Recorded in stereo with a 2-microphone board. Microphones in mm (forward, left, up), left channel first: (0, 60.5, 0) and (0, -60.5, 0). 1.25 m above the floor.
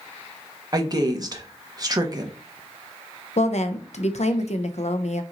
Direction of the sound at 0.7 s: 35° right (ahead or behind).